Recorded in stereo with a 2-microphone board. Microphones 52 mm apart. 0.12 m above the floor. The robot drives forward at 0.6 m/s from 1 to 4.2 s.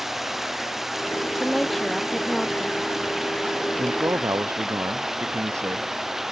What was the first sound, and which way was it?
Running water, 5° right (ahead or behind).